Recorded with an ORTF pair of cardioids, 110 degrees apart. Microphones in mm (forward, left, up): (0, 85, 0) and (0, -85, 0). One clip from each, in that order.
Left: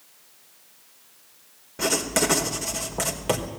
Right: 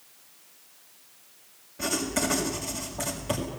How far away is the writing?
About 4 m.